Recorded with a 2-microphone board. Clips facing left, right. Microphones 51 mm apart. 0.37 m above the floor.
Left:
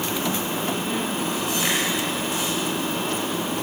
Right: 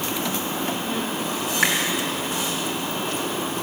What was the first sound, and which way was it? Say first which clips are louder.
A finger snap: right 6 dB; 65° right (ahead or behind).